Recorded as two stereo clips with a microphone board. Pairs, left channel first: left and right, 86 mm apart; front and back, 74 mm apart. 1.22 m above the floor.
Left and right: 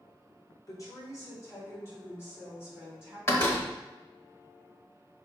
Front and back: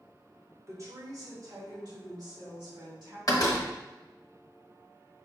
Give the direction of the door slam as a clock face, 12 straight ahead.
11 o'clock.